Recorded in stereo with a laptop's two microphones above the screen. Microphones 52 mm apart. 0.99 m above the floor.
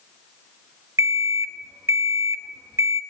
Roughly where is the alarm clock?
Right.